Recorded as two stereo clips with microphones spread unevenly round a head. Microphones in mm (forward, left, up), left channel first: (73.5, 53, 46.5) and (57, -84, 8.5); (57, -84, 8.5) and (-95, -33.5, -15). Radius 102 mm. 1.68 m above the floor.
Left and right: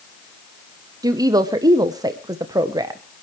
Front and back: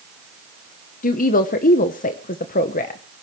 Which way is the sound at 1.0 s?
25° right.